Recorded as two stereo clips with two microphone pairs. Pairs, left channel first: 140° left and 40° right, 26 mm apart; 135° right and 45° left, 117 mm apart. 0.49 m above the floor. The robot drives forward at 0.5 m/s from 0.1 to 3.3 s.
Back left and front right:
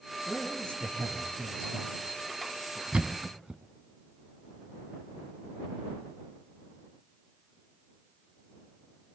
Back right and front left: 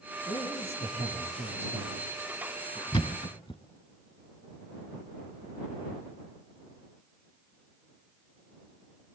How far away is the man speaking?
About 8 m.